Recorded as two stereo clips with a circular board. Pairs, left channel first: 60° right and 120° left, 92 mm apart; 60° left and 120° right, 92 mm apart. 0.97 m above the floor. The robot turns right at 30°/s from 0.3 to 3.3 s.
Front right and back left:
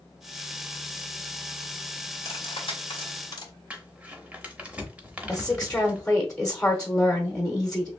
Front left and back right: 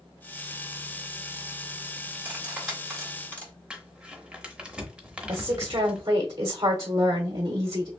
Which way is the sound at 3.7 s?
175° left.